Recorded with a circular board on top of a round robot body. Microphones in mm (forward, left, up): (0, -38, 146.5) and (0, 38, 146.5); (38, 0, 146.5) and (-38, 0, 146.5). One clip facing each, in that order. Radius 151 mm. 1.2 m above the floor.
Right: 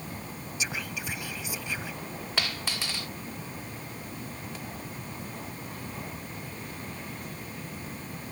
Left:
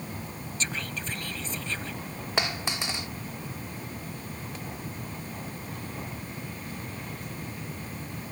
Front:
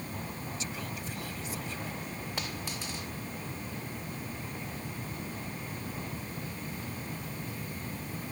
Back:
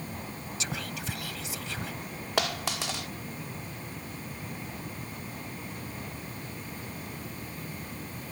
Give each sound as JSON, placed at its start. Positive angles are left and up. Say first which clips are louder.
{"t": 0.6, "sound": "whispering", "louder": "even, back 2 dB", "azimuth_deg": -170}
{"t": 2.4, "sound": "a dropped coin", "louder": "left 4 dB, back 12 dB", "azimuth_deg": 160}